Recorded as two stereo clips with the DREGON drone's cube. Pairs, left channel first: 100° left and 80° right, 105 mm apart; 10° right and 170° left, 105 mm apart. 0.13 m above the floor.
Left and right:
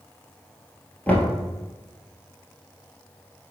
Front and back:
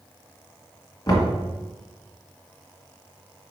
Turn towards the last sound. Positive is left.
turn(degrees=30)